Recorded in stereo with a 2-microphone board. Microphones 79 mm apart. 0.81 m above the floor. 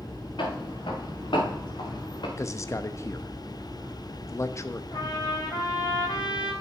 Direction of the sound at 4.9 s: 60° left (ahead or behind).